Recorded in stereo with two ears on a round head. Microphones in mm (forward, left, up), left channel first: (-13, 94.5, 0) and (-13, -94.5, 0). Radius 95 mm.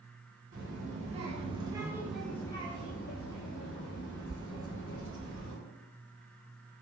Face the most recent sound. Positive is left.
turn(degrees=65)  # may be behind; listen again after turning